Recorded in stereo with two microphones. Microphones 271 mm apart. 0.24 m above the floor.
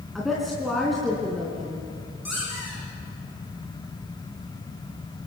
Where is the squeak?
75° left (ahead or behind), 8.5 m.